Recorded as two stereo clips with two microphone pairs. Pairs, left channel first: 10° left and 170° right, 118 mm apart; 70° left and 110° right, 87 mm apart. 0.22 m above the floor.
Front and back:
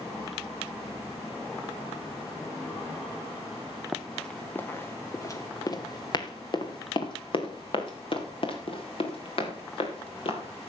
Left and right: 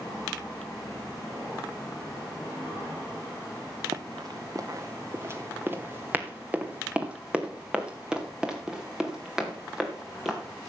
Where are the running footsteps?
85° right, 0.9 m; by 10.7 s 25° right, 4 m.